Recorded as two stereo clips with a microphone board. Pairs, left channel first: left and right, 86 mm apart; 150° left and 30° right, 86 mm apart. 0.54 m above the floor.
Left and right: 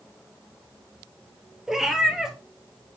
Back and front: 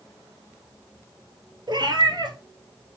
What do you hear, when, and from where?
1.7 s a cat meowing: 5° right, 1.3 m